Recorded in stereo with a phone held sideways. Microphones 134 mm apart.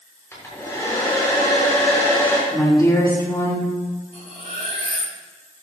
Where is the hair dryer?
20° left (ahead or behind), 3.5 m.